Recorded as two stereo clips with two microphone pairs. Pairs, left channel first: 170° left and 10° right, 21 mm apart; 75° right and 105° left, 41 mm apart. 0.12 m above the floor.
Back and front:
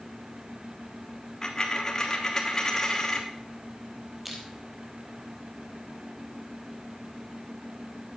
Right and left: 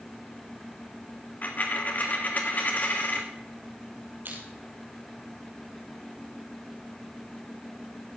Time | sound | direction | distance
1.4 | a dropped coin | 125° right | 1.3 m
4.2 | crushing | 75° left | 3 m